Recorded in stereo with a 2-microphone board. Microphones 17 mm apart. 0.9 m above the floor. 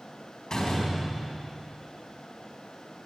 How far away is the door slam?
About 4.5 m.